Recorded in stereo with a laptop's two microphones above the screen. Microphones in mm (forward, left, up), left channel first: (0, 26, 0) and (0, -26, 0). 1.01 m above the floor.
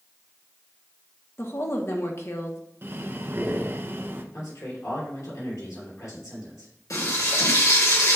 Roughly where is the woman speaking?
Left.